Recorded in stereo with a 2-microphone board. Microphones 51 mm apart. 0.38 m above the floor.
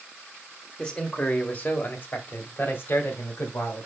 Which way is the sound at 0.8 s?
15° left (ahead or behind).